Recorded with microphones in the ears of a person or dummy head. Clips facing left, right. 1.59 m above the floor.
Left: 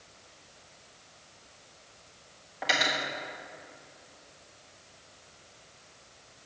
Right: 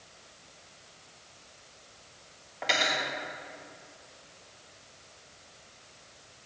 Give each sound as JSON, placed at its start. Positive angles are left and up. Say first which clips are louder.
{"t": 2.6, "sound": "cutlery clinking", "louder": "even", "side_deg": 5, "distance_m": 1.4}